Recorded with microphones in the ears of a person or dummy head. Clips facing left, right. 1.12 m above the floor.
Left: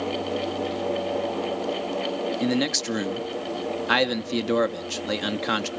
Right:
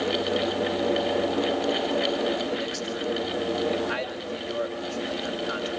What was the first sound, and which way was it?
A man speaking, 75° left (ahead or behind).